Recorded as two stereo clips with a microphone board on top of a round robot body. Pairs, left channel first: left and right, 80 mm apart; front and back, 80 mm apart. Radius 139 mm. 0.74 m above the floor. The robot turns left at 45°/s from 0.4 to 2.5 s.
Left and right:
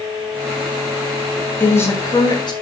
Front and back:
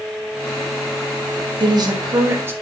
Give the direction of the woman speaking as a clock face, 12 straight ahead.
7 o'clock.